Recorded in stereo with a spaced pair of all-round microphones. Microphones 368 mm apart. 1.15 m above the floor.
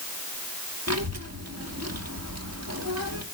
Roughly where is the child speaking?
Right.